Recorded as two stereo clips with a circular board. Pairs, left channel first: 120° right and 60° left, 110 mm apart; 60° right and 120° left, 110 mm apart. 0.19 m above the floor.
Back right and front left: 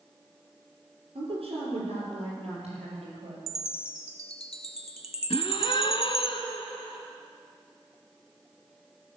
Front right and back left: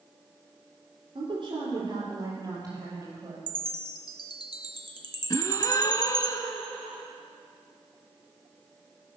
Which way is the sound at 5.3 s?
110° right.